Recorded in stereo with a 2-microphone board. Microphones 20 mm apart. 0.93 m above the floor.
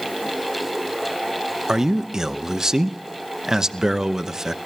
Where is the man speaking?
35° right (ahead or behind), 0.8 m.